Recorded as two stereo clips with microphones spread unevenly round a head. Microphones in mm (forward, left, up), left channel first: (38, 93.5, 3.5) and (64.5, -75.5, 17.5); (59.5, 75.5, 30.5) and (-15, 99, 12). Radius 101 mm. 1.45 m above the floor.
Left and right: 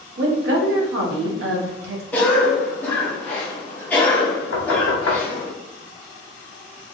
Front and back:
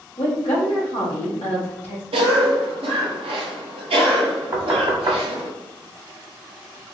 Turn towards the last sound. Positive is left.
turn(degrees=120)